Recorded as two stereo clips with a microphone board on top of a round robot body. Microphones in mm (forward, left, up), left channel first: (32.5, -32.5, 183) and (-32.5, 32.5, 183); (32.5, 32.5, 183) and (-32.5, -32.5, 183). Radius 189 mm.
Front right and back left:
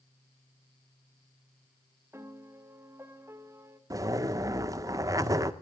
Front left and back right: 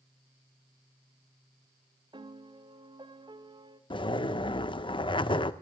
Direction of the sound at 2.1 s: 165° right.